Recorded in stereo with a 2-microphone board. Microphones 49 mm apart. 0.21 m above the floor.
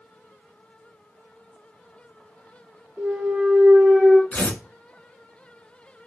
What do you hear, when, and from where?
3.0 s a clunk: 5° right (ahead or behind), 1.1 m
4.3 s tearing paper: 35° left (ahead or behind), 0.7 m